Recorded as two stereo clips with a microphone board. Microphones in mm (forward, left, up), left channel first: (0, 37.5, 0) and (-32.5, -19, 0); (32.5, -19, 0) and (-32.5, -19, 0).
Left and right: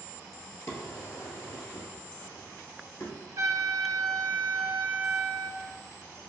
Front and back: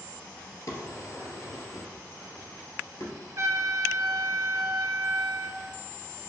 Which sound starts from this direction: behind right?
A trumpet, at 3.4 s.